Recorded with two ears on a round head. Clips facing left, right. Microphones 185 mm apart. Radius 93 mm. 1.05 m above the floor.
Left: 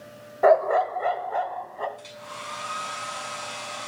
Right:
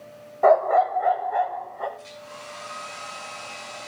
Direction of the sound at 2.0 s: 75° left (ahead or behind).